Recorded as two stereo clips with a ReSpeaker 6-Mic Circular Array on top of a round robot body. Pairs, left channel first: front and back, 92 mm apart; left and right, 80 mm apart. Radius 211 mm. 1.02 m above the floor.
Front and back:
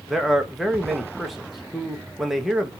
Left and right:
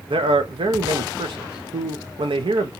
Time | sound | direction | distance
0.1 | a man speaking | 90° right | 1.1 m